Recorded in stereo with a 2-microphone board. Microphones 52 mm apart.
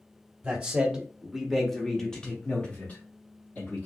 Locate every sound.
0.4 s a man speaking: 20° right (ahead or behind), 1.2 m; by 3.9 s 35° left (ahead or behind), 1.3 m